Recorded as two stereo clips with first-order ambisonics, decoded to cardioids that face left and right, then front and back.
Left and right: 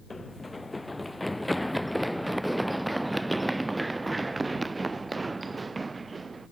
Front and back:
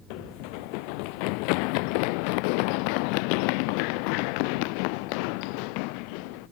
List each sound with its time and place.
0.1 s running footsteps: 10° left; by 6.5 s 10° right